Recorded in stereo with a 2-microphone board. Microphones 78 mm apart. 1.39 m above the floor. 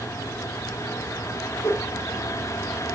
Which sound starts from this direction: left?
A whoosh, at 1.6 s.